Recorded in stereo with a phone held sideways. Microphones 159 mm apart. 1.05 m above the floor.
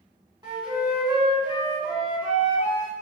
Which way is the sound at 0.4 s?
25° right (ahead or behind).